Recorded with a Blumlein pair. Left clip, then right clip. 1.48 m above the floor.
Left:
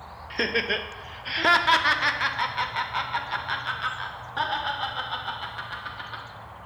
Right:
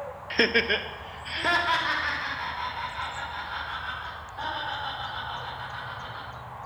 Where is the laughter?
20° right, 0.7 m; by 6.2 s 50° left, 3.5 m.